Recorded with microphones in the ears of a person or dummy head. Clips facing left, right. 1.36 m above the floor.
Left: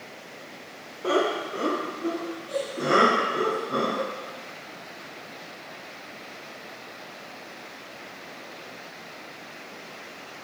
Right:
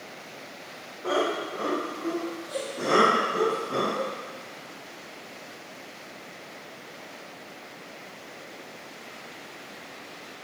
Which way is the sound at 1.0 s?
35° left (ahead or behind).